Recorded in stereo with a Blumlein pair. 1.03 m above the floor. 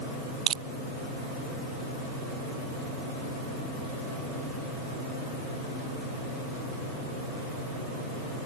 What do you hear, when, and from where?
0.5 s crushing: 25° right